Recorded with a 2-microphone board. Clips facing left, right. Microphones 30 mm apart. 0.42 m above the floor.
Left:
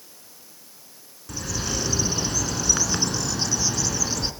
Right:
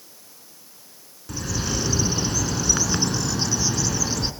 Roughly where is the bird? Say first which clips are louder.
Right 2 dB; centre.